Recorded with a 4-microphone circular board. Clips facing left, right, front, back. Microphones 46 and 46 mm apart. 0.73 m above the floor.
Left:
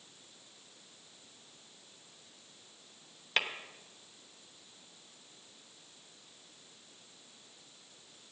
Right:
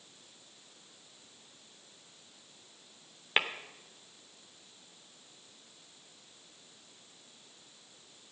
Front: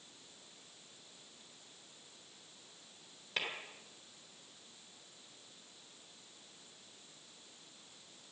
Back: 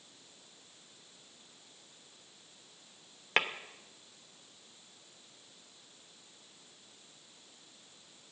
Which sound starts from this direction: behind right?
Tapping, at 3.4 s.